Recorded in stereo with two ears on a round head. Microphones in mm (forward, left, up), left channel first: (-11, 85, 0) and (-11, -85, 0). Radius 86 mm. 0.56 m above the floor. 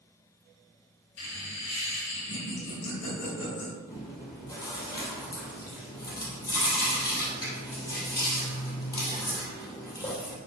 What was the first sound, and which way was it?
Laughter, 65° left (ahead or behind).